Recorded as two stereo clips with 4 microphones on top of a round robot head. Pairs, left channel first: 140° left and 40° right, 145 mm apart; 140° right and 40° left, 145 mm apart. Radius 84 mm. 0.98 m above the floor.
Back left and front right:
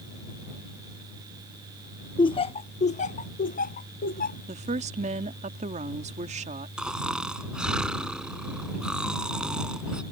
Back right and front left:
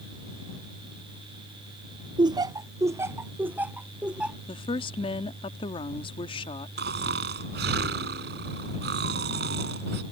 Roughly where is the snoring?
Ahead left.